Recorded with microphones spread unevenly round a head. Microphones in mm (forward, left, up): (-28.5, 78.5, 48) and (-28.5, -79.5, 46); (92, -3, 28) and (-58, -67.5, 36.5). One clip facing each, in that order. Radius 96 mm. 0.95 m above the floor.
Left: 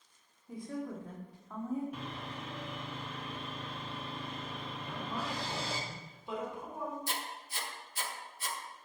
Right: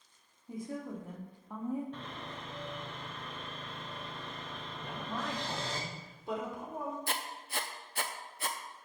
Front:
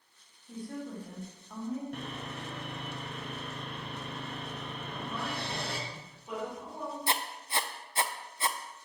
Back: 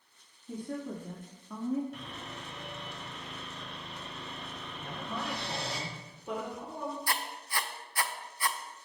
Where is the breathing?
I don't hear breathing.